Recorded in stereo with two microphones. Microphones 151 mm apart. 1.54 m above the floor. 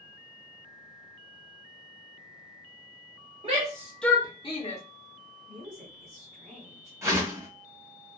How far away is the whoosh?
About 1.3 m.